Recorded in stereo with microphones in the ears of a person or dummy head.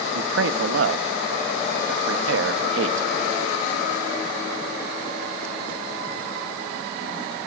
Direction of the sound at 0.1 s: 70° right (ahead or behind).